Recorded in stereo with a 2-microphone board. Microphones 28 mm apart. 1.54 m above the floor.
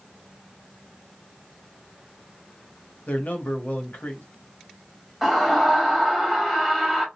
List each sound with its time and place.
3.1 s a man speaking: 70° left (ahead or behind), 1.3 m
5.2 s a scream: 5° right (ahead or behind), 2 m